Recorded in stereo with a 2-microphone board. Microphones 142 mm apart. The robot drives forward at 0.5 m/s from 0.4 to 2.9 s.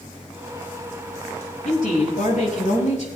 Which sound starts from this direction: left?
A woman speaking, at 1.6 s.